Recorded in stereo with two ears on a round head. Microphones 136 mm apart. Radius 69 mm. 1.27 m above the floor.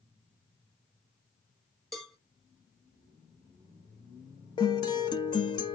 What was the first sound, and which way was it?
A cowbell, 5° left (ahead or behind).